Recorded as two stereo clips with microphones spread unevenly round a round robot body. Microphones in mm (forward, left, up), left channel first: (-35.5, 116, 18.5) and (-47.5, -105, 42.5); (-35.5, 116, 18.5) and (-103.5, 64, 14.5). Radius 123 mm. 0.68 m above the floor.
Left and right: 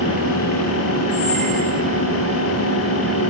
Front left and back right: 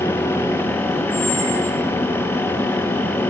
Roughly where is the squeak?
Ahead.